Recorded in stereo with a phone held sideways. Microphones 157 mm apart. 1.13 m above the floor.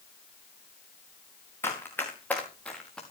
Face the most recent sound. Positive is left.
turn(degrees=5)  # may be behind; listen again after turning